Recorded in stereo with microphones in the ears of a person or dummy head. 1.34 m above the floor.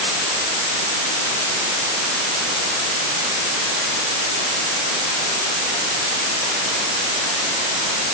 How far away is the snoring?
No snoring in this recording.